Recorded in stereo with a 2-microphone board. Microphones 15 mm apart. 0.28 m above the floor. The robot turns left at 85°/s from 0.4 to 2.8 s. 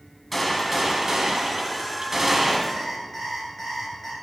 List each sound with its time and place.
0.3 s a gunshot: 10° left, 1.5 m; by 2.6 s 175° right, 1.5 m
2.7 s an alarm clock: 5° left (ahead or behind), 2.5 m; by 4.1 s 15° left (ahead or behind), 2.5 m